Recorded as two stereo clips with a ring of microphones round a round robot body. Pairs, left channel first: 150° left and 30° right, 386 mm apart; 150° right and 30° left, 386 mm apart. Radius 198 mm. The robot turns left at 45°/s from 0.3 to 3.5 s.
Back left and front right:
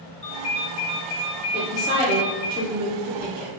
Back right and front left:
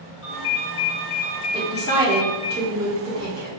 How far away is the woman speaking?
About 1.3 m.